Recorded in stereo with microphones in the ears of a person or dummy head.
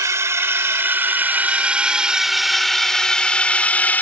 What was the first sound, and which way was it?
A drone, 15° right (ahead or behind).